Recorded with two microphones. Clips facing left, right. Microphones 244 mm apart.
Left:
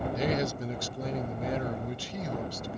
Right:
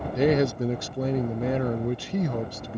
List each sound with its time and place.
0.1 s a man speaking: 65° right (ahead or behind)